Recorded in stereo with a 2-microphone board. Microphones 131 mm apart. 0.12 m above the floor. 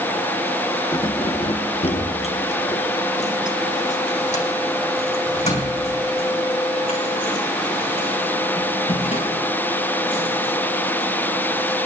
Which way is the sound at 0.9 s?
30° left (ahead or behind).